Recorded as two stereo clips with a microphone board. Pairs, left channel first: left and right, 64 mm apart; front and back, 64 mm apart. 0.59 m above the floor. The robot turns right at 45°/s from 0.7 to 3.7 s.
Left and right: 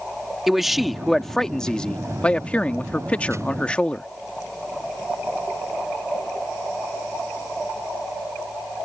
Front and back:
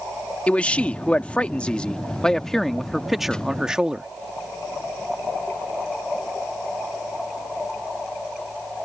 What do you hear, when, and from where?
0.5 s a man speaking: 10° right; by 4.1 s 125° left